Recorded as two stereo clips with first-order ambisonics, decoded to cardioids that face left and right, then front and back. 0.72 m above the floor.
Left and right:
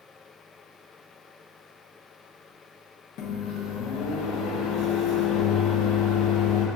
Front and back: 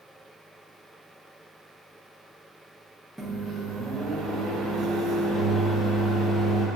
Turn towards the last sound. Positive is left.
turn(degrees=90)